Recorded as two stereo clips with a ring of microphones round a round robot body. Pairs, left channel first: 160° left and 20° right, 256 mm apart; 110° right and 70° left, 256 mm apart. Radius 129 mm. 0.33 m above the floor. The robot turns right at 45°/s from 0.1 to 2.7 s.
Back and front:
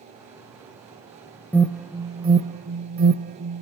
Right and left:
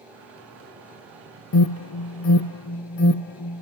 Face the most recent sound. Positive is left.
turn(degrees=-70)